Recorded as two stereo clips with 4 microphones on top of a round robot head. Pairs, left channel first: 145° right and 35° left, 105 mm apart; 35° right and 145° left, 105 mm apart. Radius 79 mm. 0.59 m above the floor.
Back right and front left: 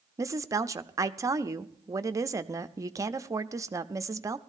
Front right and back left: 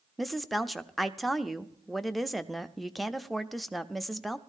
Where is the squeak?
No squeak in this recording.